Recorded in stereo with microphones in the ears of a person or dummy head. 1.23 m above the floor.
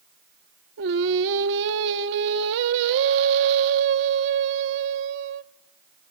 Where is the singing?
65° right (ahead or behind), 1.1 m.